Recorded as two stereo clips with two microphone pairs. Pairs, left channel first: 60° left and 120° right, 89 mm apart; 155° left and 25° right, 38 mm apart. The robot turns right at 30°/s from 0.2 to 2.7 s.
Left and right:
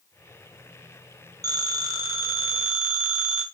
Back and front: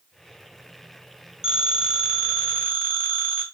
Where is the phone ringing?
90° right, 1.1 m; by 3.4 s 50° right, 1.1 m.